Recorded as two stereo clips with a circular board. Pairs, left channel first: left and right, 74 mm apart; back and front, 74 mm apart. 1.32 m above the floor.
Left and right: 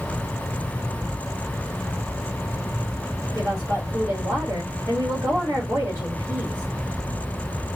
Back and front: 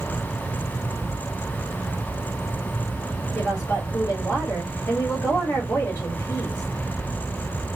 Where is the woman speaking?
120° right, 2 m.